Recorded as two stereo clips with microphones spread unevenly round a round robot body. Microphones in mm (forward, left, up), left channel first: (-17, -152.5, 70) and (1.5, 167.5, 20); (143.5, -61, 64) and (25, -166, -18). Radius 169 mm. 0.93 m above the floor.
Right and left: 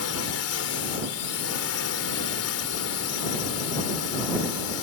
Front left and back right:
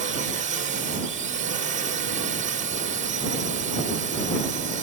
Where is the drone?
140° right.